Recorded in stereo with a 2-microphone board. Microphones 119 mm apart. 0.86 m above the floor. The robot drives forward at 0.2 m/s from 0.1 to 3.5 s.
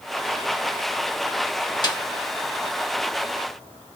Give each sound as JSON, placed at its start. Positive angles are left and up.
{"t": 1.8, "sound": "a snare drum", "side_deg": 35, "distance_m": 1.5}